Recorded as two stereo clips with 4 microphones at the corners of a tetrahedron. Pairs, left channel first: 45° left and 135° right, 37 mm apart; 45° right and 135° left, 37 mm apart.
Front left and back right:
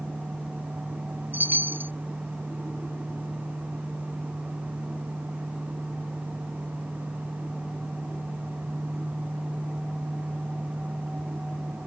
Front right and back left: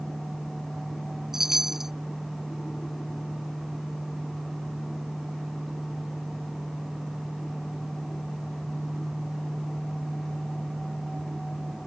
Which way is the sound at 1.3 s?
145° right.